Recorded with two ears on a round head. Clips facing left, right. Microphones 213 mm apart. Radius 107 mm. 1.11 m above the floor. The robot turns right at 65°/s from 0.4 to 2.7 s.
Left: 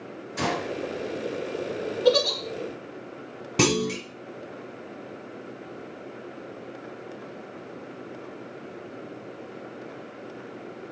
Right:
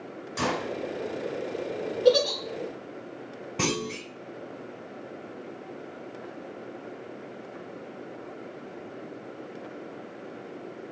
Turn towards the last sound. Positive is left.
turn(degrees=55)  # may be behind; listen again after turning